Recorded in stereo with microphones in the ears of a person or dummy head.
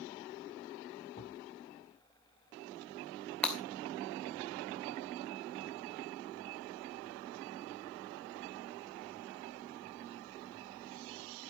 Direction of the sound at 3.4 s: 5° left (ahead or behind).